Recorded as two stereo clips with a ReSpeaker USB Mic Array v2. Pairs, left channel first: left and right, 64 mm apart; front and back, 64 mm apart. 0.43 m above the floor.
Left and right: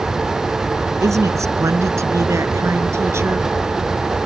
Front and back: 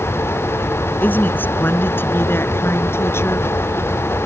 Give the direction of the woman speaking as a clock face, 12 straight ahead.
2 o'clock.